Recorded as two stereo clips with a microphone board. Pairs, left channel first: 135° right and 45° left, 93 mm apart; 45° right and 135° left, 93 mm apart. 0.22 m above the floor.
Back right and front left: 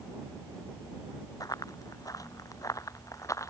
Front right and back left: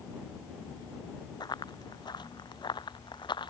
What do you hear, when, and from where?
1.4 s running footsteps: 85° right; by 3.5 s 80° right